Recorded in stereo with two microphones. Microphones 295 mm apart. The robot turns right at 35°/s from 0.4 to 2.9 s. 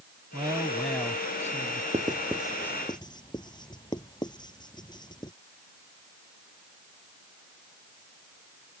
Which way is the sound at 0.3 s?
15° right.